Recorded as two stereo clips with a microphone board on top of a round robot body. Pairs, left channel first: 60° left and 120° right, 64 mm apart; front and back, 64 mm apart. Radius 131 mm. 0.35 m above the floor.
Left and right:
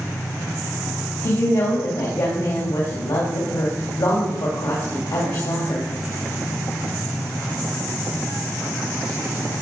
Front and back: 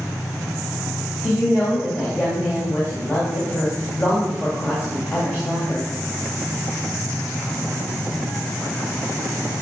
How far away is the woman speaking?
About 2.5 m.